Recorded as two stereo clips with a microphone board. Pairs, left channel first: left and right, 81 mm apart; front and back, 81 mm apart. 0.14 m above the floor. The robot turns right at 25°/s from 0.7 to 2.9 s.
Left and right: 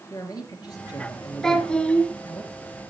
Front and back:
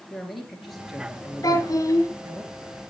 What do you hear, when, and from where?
0.1 s a man speaking: 90° left, 2.5 m; by 2.4 s 135° left, 2.5 m
1.4 s a child speaking: 10° left, 1.5 m; by 2.1 s 25° left, 1.5 m